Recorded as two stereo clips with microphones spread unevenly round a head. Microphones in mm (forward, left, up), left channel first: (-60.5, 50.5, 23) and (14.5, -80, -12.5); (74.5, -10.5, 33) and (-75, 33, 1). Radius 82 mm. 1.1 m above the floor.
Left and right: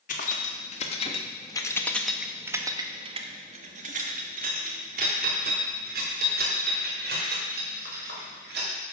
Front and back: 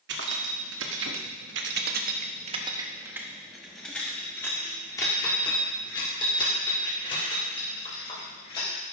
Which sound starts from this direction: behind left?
Keys jangling, at 0.1 s.